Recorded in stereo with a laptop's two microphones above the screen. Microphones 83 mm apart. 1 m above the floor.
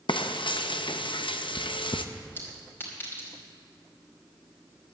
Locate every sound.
0.1 s frying: 75° left (ahead or behind), 0.7 m
2.4 s a clink: 25° left (ahead or behind), 2.5 m